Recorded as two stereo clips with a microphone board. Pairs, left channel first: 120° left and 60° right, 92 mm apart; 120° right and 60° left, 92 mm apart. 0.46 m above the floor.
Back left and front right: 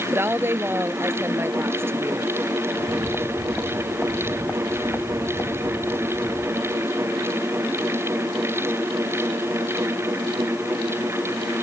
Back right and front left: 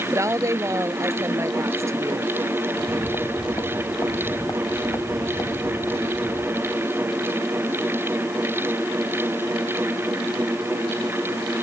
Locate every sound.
0.1 s a woman speaking: 5° left
2.7 s footsteps: 160° right; by 6.9 s straight behind